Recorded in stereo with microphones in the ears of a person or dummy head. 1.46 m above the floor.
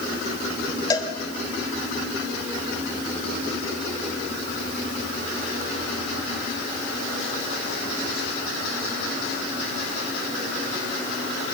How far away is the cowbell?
About 3 m.